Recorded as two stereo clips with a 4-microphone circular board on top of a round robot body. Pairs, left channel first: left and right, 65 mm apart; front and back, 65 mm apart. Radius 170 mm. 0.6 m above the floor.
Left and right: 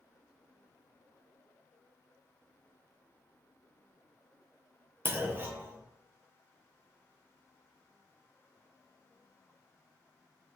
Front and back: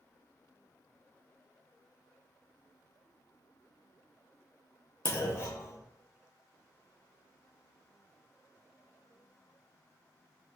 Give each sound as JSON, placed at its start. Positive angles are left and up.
{"t": 5.0, "sound": "a clunk", "azimuth_deg": -35, "distance_m": 0.6}